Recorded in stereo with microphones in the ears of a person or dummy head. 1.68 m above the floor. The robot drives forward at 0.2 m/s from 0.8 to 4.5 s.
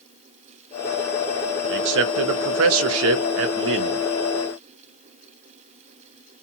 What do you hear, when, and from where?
1.7 s a man speaking: 65° right (ahead or behind), 0.6 m